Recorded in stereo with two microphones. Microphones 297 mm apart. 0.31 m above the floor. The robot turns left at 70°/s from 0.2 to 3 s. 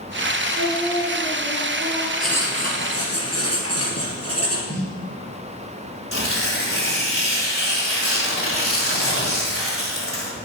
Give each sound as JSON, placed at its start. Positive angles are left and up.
{"t": 0.5, "sound": "singing", "azimuth_deg": -10, "distance_m": 2.5}
{"t": 2.2, "sound": "writing", "azimuth_deg": 180, "distance_m": 2.5}
{"t": 4.7, "sound": "a snare drum", "side_deg": 35, "distance_m": 2.5}
{"t": 6.1, "sound": "tearing paper", "side_deg": 45, "distance_m": 2.0}